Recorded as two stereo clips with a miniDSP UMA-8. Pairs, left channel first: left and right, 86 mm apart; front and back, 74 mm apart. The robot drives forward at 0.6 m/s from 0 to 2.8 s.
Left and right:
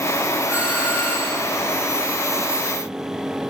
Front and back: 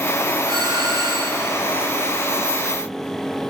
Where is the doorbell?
160° right, 8.5 m; by 1.5 s 165° right, 9 m.